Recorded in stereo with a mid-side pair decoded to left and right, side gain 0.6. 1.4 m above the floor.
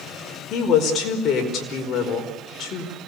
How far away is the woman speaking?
About 5 m.